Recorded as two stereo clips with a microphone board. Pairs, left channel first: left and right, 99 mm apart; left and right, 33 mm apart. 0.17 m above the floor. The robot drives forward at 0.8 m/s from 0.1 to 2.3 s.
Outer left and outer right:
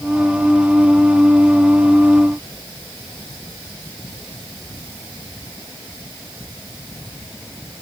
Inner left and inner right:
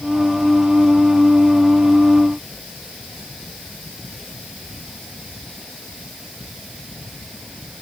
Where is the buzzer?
No buzzer in this recording.